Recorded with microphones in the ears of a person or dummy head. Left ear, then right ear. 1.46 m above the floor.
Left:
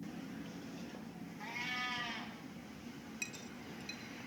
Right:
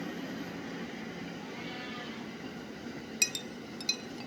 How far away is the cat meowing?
About 3 m.